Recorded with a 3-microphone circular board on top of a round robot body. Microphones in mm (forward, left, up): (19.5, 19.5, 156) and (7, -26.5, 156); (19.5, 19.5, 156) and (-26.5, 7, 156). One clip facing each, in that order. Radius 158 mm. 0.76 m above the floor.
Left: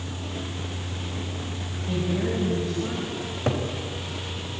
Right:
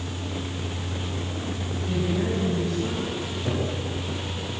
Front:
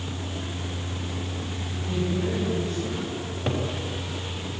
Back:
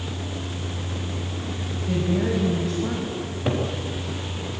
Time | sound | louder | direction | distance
1.9 | a woman speaking | even, back 4 dB | 145° left | 6 m
3.2 | a cupboard door | left 1 dB, back 3 dB | 105° left | 3.5 m